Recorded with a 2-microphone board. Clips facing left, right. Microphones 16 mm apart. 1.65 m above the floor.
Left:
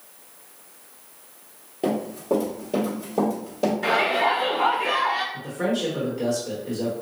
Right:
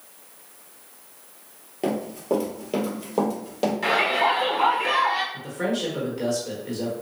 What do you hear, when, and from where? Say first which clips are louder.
1.8 s running footsteps: left 1 dB; 20° right (ahead or behind), 1.7 m; by 3.7 s 50° right (ahead or behind), 2.5 m
3.8 s a shout: right 1 dB; 65° right (ahead or behind), 2.0 m
5.3 s a man speaking: left 1 dB; 20° right (ahead or behind), 1.3 m